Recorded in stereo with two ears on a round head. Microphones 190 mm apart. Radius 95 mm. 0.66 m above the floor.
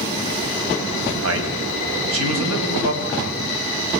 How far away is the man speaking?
About 5.5 m.